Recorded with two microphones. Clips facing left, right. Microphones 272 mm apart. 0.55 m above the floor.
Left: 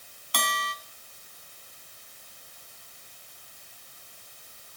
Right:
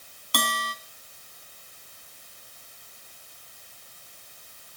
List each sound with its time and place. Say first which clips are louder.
0.3 s a bell: right 4 dB; 45° right (ahead or behind), 2.5 m